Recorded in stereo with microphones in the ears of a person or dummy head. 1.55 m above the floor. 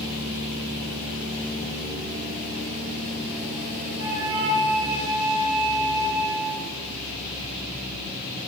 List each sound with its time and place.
4.0 s a flute: 55° right (ahead or behind), 2.5 m